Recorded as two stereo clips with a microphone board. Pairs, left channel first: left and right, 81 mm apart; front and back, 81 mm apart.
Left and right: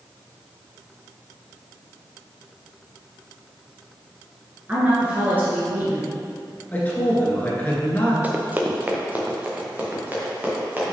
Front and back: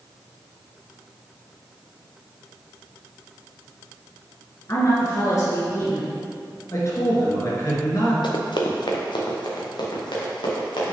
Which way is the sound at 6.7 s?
30° left.